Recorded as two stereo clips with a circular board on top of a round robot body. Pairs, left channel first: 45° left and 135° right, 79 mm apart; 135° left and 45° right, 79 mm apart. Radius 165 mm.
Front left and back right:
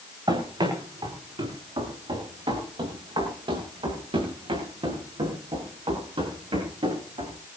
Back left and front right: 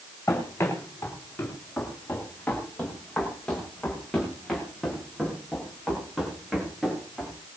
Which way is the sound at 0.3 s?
165° right.